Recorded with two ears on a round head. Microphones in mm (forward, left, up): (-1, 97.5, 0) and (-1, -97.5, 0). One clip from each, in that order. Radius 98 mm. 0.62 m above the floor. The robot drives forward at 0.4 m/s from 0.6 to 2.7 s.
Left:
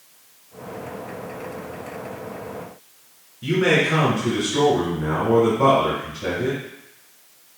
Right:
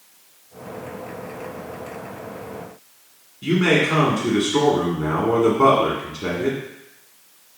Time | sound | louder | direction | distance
3.4 | a man speaking | even | 45° right (ahead or behind) | 1.3 m